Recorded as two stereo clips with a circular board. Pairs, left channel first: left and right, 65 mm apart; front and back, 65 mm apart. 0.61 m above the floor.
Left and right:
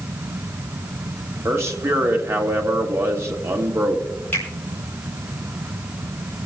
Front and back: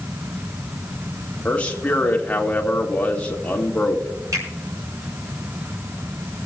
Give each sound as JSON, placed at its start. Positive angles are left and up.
{"t": 1.4, "sound": "a man speaking", "azimuth_deg": -65, "distance_m": 1.5}
{"t": 4.3, "sound": "a finger snap", "azimuth_deg": 150, "distance_m": 4.5}